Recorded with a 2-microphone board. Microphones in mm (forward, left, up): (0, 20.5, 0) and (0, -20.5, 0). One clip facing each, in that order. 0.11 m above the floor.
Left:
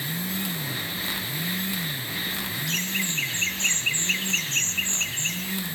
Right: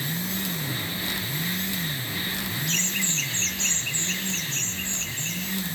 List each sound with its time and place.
2.7 s laughter: centre (ahead or behind), 1.3 m; by 5.4 s 55° left (ahead or behind), 3 m